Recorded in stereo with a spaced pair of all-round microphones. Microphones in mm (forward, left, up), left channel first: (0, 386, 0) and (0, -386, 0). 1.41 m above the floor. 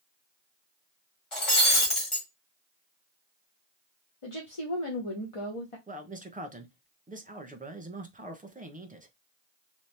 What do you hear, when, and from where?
1.3 s breaking glass: 40° left (ahead or behind), 1.5 m
4.2 s a woman speaking: 45° left (ahead or behind), 0.9 m
5.9 s a man speaking: 10° right (ahead or behind), 0.8 m